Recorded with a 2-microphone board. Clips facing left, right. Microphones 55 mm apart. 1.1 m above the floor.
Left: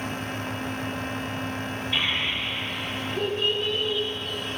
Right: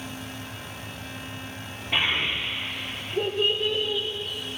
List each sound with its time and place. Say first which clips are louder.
1.9 s a child speaking: right 3 dB; 55° right (ahead or behind), 2 m; by 4.1 s 10° right (ahead or behind), 2.0 m